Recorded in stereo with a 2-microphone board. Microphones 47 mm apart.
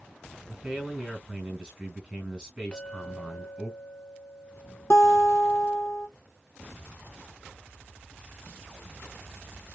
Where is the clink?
25° left (ahead or behind), 1.4 m.